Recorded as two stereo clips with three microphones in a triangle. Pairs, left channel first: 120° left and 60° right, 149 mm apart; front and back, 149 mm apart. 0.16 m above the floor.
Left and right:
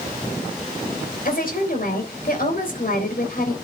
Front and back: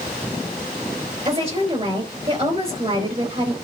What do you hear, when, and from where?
1.2 s a woman speaking: 130° left, 3.5 m